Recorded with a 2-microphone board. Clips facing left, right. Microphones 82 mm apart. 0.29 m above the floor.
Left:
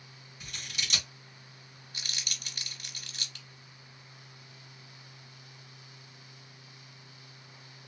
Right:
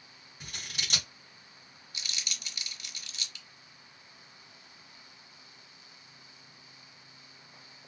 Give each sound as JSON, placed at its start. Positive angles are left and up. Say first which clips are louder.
{"t": 0.4, "sound": "scissors", "louder": "left 1 dB", "side_deg": -45, "distance_m": 1.6}
{"t": 1.9, "sound": "crumpling", "louder": "even", "side_deg": 45, "distance_m": 0.7}